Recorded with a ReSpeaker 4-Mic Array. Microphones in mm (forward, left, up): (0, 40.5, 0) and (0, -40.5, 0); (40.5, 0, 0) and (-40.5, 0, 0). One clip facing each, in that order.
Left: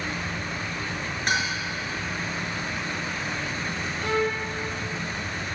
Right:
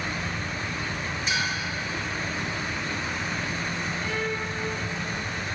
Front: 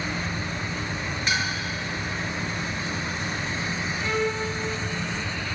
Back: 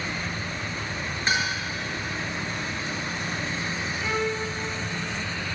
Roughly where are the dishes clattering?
Behind left.